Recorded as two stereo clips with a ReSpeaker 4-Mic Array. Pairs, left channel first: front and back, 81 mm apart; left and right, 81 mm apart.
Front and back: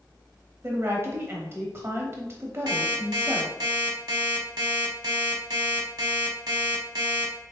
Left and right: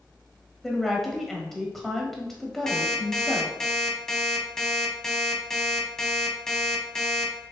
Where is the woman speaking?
175° left, 1.0 m.